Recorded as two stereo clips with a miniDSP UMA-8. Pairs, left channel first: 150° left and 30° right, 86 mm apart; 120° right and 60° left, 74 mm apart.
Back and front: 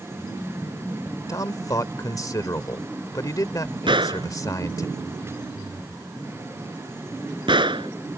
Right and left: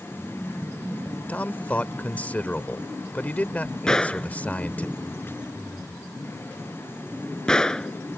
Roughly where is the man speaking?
Behind.